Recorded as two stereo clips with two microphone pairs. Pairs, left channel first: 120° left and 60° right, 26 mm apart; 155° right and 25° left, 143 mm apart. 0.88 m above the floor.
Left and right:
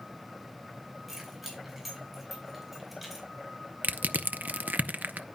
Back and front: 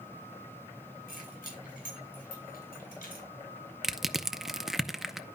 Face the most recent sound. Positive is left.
turn(degrees=-55)